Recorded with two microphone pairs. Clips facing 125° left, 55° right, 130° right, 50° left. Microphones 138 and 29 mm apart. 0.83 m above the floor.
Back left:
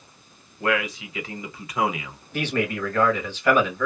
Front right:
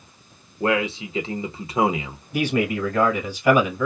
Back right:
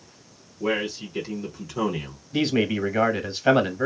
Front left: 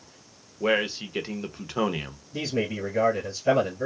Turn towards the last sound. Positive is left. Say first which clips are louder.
# front right 4 dB, back right 6 dB
turn(degrees=-130)